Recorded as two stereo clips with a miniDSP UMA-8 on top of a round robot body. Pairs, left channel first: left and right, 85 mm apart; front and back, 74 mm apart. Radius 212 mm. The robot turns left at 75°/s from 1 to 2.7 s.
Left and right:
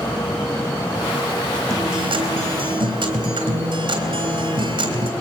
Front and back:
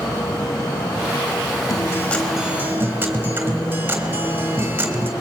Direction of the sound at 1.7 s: 35° right.